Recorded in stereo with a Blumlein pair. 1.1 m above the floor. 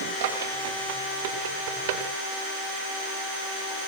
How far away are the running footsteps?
About 8.5 m.